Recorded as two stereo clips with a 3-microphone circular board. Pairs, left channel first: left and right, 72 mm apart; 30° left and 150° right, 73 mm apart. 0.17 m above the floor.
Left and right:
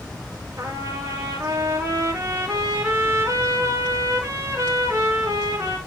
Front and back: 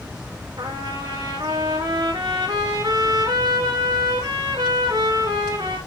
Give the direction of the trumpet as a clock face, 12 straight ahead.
5 o'clock.